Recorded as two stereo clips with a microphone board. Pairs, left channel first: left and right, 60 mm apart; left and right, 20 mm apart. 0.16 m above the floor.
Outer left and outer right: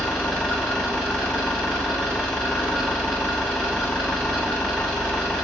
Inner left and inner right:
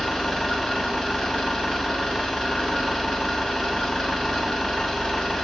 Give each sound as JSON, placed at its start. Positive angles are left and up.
{"t": 0.0, "sound": "an engine running", "side_deg": 5, "distance_m": 7.0}